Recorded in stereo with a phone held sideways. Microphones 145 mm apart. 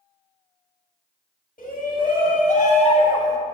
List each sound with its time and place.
1.6 s a shout: 80° left, 1.5 m; by 3.4 s 20° left (ahead or behind), 0.7 m